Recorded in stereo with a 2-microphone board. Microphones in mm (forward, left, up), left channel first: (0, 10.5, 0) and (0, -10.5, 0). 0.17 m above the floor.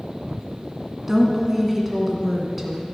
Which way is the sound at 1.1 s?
5° right (ahead or behind).